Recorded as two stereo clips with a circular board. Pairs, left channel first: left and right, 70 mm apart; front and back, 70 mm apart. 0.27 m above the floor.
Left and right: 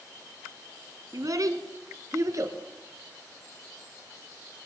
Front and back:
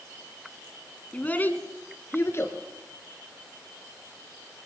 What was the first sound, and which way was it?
A child speaking, 65° right.